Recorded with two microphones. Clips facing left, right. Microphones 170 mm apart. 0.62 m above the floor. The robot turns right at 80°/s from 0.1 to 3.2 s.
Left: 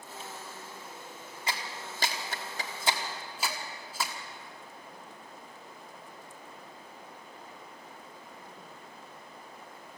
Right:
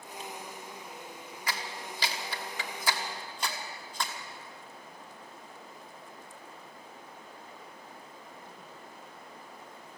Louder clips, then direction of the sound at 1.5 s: Even; 25° left (ahead or behind).